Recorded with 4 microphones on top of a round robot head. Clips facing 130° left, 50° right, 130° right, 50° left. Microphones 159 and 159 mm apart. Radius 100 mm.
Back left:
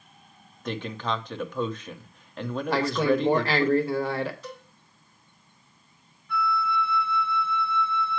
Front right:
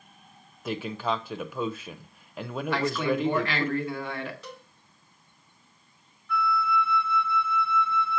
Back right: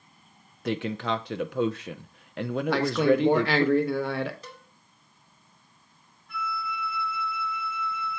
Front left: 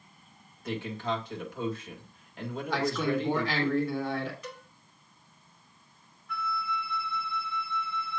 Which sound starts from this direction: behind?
A man speaking, at 2.7 s.